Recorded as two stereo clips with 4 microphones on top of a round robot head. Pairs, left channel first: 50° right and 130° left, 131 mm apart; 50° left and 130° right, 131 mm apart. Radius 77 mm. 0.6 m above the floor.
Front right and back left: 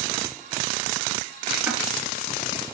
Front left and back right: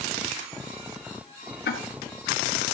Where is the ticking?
50° left, 2.5 m.